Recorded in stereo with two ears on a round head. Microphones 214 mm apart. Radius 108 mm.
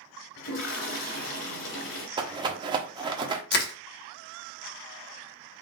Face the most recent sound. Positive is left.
turn(degrees=45)  # may be behind; listen again after turning